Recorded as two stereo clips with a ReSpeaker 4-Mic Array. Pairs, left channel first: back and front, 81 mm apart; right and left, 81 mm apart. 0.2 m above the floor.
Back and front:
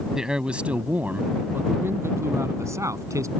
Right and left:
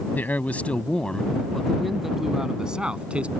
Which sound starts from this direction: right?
A man speaking, at 0.1 s.